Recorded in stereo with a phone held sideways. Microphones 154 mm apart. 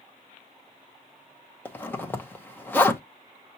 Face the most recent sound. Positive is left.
turn(degrees=10)  # may be behind; listen again after turning